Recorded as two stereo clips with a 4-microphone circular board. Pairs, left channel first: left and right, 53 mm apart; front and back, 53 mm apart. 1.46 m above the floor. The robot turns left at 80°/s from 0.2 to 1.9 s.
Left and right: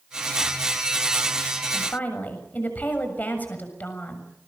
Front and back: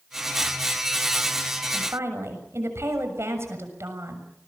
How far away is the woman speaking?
About 6.5 m.